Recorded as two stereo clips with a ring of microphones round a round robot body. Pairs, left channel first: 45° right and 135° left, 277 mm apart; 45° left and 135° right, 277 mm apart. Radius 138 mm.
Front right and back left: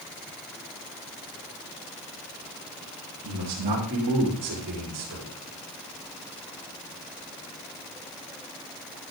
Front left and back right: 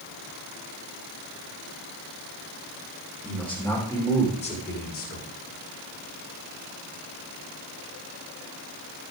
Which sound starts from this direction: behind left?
A man speaking, at 3.2 s.